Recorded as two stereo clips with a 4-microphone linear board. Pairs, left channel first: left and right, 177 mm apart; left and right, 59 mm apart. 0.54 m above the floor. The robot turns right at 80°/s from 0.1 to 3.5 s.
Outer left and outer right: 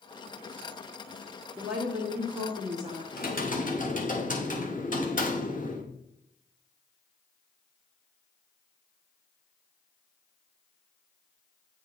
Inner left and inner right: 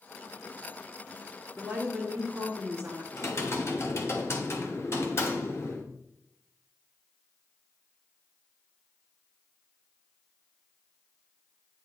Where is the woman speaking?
170° right, 1.6 m; by 3.0 s 50° right, 1.6 m.